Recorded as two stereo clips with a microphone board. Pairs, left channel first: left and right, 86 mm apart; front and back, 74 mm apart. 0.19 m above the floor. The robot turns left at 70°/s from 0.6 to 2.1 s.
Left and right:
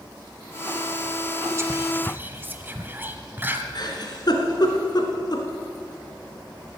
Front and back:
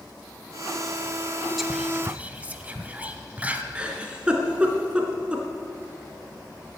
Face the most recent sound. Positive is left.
turn(degrees=105)